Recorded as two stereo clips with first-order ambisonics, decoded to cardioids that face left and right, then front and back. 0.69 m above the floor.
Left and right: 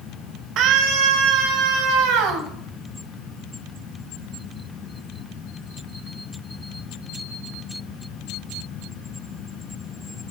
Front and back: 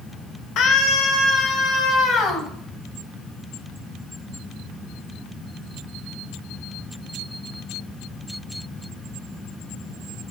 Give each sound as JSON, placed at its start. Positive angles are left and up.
{"t": 0.6, "sound": "a scream", "azimuth_deg": -45, "distance_m": 2.0}